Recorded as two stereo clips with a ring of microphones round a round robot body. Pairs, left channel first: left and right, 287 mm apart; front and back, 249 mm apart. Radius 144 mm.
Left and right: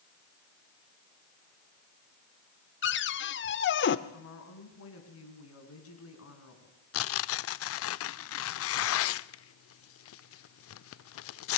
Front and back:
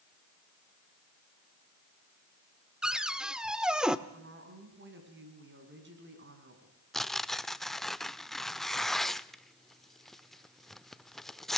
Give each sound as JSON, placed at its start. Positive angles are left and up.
{"t": 2.8, "sound": "a cupboard door", "azimuth_deg": 95, "distance_m": 0.9}
{"t": 4.1, "sound": "a woman speaking", "azimuth_deg": 135, "distance_m": 4.5}
{"t": 6.9, "sound": "tearing paper", "azimuth_deg": 90, "distance_m": 0.5}